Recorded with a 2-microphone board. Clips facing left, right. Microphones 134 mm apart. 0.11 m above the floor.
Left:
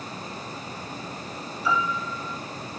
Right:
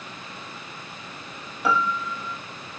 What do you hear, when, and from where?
1.6 s a piano: 60° right (ahead or behind), 3 m